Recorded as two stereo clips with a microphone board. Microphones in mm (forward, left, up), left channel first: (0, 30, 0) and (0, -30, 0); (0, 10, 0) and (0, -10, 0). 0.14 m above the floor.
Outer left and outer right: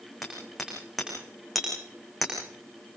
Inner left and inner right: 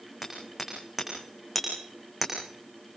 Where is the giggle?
I don't hear a giggle.